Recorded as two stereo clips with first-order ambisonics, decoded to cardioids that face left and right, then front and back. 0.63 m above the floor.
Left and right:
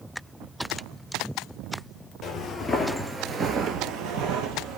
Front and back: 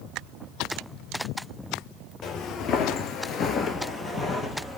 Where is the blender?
No blender in this recording.